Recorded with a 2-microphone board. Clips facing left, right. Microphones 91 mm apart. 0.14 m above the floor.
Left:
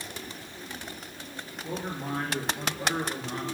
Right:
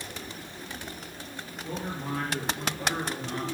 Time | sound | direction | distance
1.6 | a man speaking | 20° left (ahead or behind) | 2.5 m